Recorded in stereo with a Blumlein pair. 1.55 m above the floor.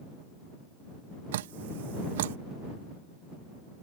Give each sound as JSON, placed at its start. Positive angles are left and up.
{"t": 1.3, "sound": "dripping", "azimuth_deg": -55}